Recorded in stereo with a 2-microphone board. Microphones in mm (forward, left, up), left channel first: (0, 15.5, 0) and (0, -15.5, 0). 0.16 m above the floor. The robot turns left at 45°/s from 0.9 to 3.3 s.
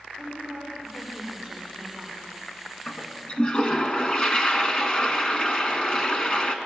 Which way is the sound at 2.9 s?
35° left (ahead or behind).